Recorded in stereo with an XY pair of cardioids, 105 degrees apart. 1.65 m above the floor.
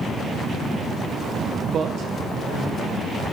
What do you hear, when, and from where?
1.7 s a man speaking: 50° right, 0.6 m; by 3.2 s 70° right, 2 m